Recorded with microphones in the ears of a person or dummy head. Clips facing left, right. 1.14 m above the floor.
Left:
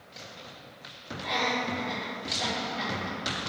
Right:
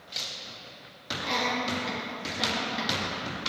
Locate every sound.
1.2 s laughter: 70° right (ahead or behind), 2 m